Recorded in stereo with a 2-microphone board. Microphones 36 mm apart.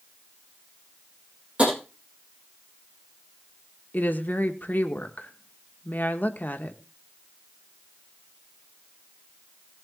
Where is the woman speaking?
55° left (ahead or behind), 1.3 m.